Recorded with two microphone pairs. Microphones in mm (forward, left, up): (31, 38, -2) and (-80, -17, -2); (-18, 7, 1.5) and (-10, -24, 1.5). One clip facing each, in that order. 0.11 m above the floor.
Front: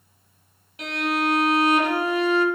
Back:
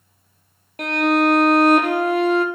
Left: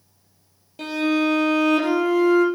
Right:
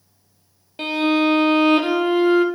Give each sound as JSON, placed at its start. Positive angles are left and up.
{"t": 0.8, "sound": "a violin", "azimuth_deg": -125, "distance_m": 1.0}